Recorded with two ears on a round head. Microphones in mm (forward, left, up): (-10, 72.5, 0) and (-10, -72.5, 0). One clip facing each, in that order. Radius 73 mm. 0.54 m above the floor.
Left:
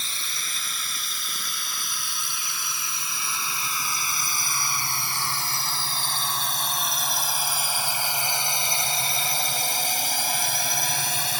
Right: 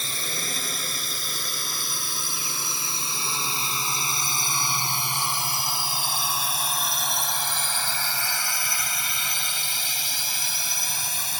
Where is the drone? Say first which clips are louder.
Right 6 dB; 40° right (ahead or behind); by 11.4 s 60° left (ahead or behind).